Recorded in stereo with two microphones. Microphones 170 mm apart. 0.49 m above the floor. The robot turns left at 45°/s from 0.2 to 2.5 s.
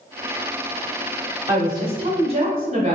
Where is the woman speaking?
35° right, 0.9 m; by 3.0 s 80° right, 0.9 m.